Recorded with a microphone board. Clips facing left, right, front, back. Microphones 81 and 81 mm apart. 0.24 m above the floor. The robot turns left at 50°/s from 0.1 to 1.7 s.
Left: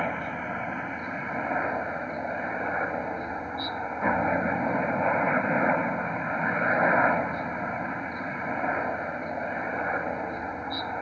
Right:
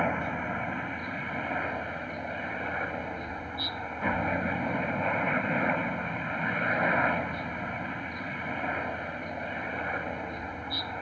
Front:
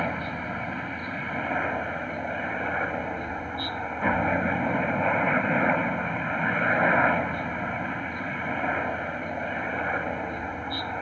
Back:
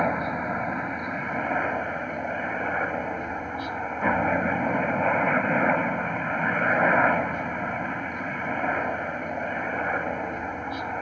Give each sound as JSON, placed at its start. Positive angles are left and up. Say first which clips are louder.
{"t": 0.0, "sound": "a helicopter", "louder": "right 1 dB, back 4 dB", "azimuth_deg": -170}